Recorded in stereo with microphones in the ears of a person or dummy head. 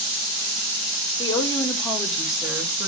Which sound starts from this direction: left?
A woman speaking, at 1.2 s.